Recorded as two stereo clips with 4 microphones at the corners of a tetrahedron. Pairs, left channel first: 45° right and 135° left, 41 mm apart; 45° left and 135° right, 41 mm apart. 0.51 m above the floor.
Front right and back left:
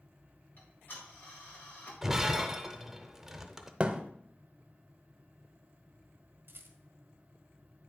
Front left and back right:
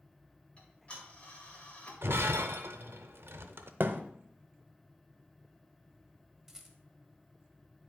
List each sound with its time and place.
0.6 s ticking: 15° right, 2.0 m
2.0 s breaking glass: 145° right, 0.6 m
3.8 s a thud: 165° right, 0.6 m
6.5 s a rattle: 145° left, 1.1 m